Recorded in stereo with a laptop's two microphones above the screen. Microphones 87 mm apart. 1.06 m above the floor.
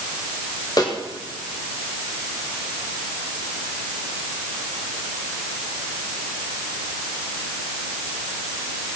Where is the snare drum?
45° left (ahead or behind), 2.5 m.